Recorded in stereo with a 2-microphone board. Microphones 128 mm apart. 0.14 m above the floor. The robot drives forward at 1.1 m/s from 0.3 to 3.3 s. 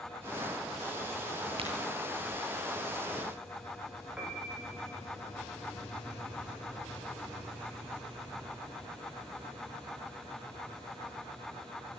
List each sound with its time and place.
1.6 s a crack: 45° right (ahead or behind), 9.5 m
4.2 s a piano: 10° right (ahead or behind), 8.5 m